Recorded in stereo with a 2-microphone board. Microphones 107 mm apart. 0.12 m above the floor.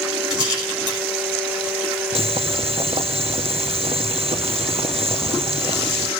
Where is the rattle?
45° right (ahead or behind), 7 m.